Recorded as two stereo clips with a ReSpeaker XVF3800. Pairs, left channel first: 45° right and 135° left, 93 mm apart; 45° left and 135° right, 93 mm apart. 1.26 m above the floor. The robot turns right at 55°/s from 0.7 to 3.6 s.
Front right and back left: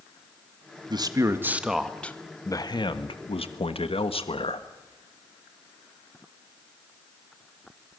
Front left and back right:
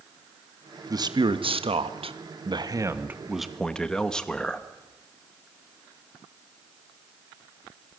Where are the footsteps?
No footsteps in this recording.